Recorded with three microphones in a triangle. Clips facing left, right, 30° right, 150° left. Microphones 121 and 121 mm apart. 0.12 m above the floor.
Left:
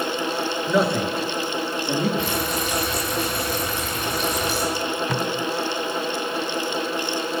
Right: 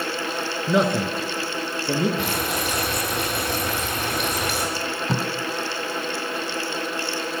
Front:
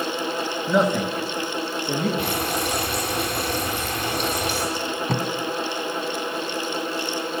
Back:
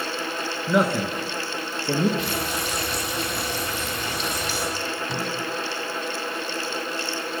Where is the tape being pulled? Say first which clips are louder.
Left 2 dB, front 3 dB; 40° right, 1.0 m.